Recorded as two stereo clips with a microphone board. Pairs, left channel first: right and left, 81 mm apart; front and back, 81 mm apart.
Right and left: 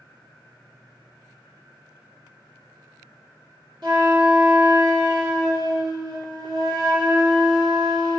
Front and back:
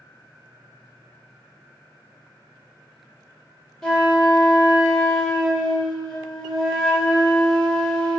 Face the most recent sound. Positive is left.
turn(degrees=85)